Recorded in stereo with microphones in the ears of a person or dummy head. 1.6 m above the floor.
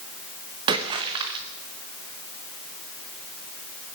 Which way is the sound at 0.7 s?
20° right (ahead or behind).